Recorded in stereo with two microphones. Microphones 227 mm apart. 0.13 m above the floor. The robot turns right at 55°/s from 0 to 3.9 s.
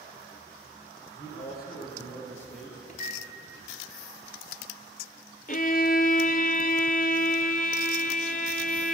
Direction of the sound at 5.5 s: 40° left (ahead or behind).